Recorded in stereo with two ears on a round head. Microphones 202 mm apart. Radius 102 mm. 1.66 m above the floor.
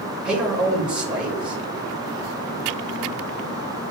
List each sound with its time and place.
0.2 s a man speaking: 5° right (ahead or behind), 3 m